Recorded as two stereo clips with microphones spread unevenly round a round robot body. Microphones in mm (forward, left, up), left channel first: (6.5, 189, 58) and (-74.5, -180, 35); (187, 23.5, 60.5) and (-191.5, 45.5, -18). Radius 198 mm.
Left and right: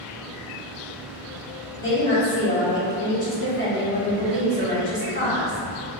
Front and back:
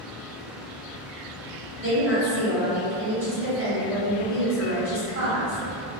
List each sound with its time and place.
1.8 s a woman speaking: 135° left, 1.9 m